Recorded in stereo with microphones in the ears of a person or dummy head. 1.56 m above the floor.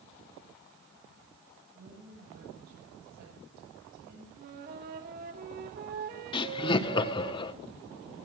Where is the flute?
50° right (ahead or behind), 1.5 m.